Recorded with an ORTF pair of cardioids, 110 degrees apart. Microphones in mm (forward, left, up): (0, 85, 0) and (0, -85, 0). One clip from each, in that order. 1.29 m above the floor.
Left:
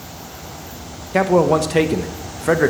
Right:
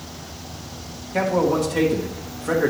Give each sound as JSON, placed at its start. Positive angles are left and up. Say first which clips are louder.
{"t": 1.1, "sound": "a man speaking", "louder": "left 5 dB", "azimuth_deg": 50, "distance_m": 0.8}